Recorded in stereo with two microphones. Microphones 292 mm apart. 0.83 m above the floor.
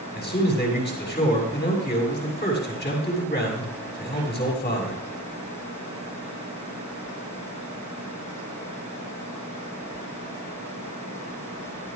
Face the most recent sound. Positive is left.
turn(degrees=35)  # may be behind; listen again after turning